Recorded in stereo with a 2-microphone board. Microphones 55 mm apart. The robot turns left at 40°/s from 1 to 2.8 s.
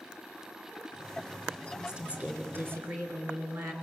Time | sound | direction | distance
1.7 | a woman speaking | 10° right | 2.5 m